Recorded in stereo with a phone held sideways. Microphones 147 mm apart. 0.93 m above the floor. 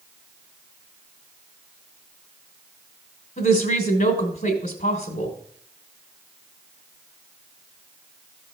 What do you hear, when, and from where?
3.4 s a woman speaking: 70° left (ahead or behind), 2.5 m